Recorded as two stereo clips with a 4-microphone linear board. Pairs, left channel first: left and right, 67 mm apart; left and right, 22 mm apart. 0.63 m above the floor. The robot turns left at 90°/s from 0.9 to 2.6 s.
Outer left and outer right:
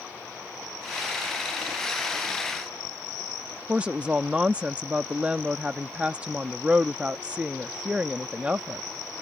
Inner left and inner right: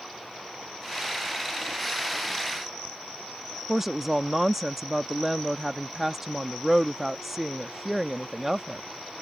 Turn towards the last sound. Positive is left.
turn(degrees=-15)  # may be behind; listen again after turning